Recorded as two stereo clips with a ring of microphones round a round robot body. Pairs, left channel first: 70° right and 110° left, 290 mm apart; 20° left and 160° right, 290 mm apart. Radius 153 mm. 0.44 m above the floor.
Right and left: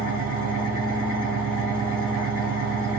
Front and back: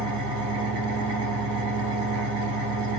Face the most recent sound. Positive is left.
turn(degrees=165)